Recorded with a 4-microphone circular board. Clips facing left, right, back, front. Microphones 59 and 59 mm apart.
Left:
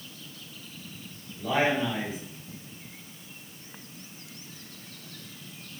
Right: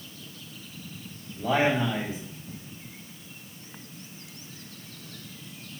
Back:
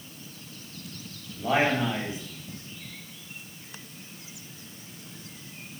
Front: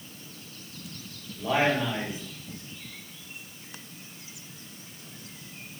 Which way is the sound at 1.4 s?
115° right.